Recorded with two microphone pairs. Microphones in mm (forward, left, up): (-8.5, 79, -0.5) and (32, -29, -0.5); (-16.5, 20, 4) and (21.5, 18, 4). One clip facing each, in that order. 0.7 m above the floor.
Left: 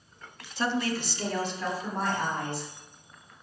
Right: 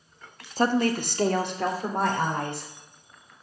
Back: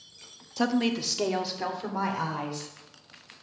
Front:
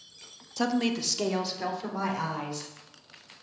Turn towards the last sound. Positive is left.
turn(degrees=-100)